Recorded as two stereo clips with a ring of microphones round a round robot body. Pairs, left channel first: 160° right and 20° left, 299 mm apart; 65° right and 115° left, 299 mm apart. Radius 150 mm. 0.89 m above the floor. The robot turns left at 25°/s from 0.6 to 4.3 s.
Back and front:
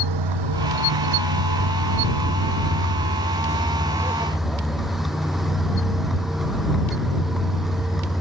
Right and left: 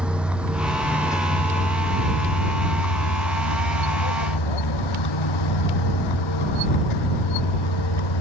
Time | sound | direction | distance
0.0 | a vehicle | 25° left | ?